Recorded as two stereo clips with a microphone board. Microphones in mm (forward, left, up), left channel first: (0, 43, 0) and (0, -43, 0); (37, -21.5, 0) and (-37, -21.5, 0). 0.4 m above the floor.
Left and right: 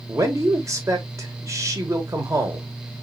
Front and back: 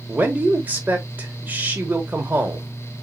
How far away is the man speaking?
About 1.2 m.